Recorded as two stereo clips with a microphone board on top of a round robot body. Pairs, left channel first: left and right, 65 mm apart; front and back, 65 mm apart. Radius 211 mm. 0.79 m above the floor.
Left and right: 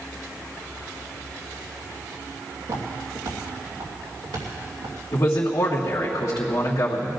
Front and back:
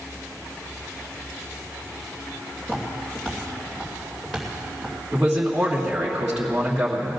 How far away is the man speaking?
About 2.5 m.